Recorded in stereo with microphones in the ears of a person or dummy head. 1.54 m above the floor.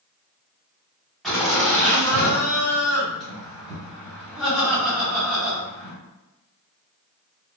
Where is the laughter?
Centre (ahead or behind), 1.3 m.